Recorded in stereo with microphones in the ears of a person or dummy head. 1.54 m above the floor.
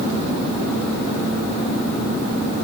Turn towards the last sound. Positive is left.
No sound to turn to.